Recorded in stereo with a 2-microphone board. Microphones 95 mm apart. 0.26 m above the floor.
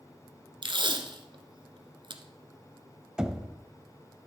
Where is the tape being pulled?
60° right (ahead or behind), 0.9 m.